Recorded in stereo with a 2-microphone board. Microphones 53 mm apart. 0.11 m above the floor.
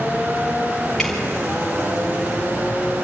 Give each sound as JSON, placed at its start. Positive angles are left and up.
{"t": 1.0, "sound": "dripping", "side_deg": 5, "distance_m": 5.0}